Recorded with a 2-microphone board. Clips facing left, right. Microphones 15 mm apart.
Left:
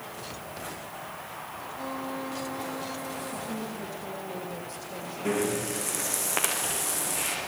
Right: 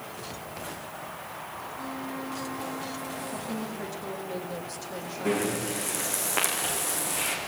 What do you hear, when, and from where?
1.8 s a violin: 30° left (ahead or behind), 5.5 m
3.3 s a woman speaking: 15° right (ahead or behind), 7 m
5.2 s breathing: 10° left (ahead or behind), 9 m